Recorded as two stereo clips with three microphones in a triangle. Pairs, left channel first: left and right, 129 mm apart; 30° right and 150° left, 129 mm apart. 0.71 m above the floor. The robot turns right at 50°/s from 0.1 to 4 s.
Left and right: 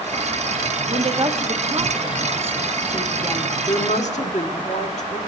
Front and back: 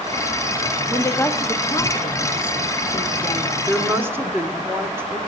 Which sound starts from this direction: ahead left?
A woman speaking, at 3.7 s.